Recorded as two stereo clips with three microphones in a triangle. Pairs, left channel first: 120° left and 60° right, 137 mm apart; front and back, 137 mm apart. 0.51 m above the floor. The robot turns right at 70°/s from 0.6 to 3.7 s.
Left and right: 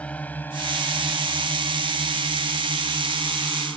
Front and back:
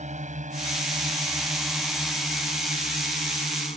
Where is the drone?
160° right; by 3.8 s 35° left.